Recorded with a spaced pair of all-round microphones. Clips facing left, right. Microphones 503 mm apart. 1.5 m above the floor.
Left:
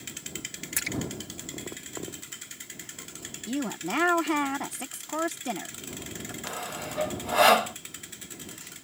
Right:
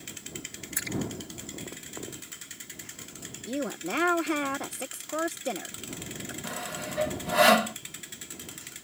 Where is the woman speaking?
20° left (ahead or behind).